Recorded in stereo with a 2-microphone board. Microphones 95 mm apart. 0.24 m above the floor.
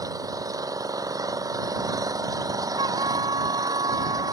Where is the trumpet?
55° right (ahead or behind).